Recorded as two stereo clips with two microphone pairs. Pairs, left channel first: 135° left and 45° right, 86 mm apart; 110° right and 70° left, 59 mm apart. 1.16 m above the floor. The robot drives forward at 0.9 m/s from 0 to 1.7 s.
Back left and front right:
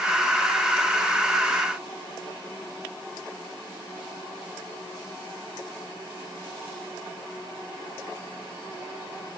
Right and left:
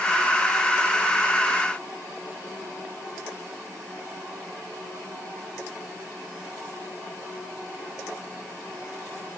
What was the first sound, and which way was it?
Only background noise.